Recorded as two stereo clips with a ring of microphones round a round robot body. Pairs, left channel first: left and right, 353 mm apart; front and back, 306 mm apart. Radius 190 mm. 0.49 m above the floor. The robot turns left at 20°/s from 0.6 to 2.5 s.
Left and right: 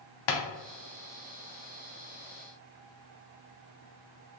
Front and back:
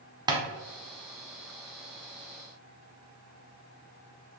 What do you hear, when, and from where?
0.3 s tapping: 100° left, 0.9 m